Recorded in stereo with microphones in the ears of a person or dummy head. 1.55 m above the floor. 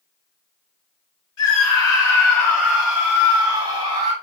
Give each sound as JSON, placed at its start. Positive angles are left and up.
{"t": 1.4, "sound": "a scream", "side_deg": 30, "distance_m": 1.4}